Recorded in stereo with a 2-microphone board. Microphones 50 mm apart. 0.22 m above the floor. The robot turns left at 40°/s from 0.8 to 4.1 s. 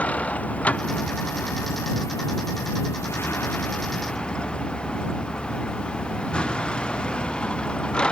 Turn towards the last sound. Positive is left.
turn(degrees=20)